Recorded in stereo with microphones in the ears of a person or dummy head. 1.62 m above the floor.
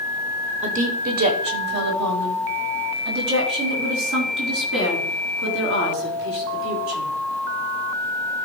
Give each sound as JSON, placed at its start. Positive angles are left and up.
{"t": 0.6, "sound": "a woman speaking", "side_deg": -35, "distance_m": 0.9}